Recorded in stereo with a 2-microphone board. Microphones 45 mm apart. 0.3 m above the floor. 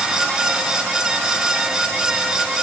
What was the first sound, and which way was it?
Only background noise.